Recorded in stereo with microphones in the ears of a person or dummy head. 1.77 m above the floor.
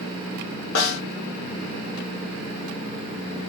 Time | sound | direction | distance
0.8 | a snare drum | 80° left | 1.1 m